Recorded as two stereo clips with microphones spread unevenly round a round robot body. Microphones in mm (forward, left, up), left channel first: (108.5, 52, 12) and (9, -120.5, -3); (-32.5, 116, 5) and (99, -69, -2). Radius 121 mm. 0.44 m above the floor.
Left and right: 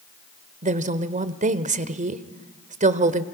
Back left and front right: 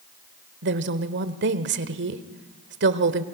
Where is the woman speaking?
80° right, 1.3 m.